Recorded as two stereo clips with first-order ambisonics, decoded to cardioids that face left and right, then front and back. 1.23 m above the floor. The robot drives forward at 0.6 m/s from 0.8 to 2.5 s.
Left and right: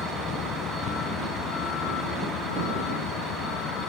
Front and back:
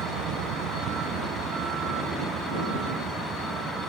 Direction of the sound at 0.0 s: 145° left.